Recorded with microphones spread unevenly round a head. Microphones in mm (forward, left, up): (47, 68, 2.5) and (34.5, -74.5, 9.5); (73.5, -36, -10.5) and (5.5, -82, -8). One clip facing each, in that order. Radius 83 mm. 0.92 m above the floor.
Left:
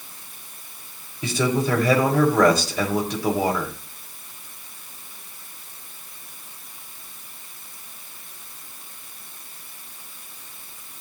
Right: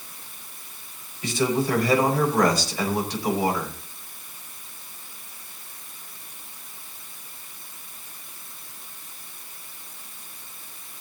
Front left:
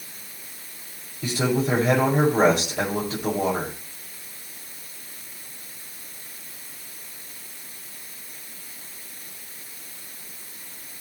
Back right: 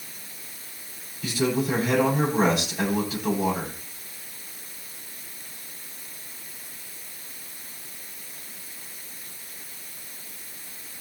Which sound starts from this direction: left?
A man speaking, at 1.2 s.